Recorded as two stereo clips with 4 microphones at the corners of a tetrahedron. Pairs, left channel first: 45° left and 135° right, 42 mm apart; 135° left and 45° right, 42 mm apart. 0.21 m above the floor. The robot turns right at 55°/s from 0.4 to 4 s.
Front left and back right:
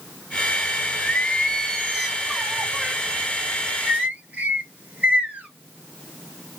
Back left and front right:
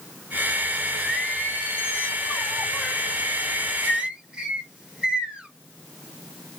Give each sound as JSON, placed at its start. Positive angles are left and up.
{"t": 1.0, "sound": "singing", "azimuth_deg": 90, "distance_m": 2.0}